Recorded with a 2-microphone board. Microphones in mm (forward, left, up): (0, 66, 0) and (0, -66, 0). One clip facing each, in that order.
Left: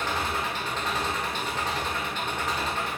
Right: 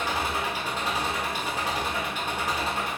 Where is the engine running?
10° right (ahead or behind), 0.9 m.